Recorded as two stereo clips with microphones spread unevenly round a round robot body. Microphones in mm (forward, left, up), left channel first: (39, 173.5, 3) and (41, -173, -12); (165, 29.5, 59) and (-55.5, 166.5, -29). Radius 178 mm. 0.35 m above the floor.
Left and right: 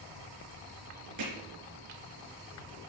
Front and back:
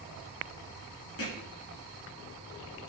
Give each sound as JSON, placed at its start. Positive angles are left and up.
{"t": 1.2, "sound": "hammering", "azimuth_deg": -55, "distance_m": 3.5}